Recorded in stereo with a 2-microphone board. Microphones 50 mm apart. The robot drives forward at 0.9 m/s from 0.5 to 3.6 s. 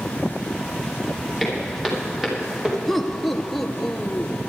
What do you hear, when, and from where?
1.4 s footsteps: 5° right (ahead or behind), 8 m; by 2.8 s 15° right (ahead or behind), 6 m
2.9 s laughter: 5° left (ahead or behind), 1.2 m